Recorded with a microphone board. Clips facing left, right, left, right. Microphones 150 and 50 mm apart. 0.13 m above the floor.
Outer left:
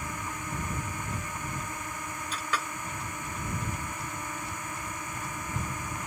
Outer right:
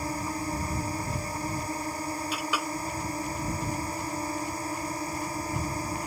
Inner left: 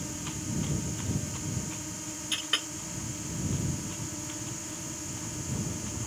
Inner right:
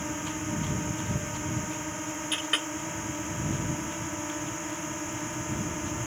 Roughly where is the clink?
Centre.